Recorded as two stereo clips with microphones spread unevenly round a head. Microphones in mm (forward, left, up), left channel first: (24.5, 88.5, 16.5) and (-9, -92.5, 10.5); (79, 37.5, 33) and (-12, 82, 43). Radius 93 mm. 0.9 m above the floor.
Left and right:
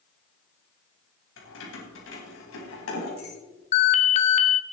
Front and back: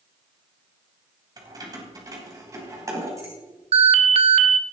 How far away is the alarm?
About 1.1 m.